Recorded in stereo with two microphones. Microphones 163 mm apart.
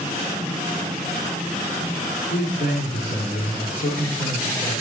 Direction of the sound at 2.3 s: 55° left (ahead or behind).